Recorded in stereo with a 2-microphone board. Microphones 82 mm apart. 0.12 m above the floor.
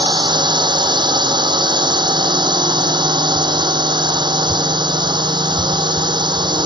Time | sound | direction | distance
0.0 | a drone | 65° right (ahead or behind) | ?